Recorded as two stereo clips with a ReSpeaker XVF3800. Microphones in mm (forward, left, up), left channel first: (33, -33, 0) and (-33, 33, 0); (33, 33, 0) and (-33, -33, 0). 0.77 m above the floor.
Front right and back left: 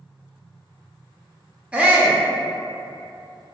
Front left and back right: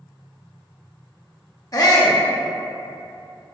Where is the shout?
65° left, 0.6 m.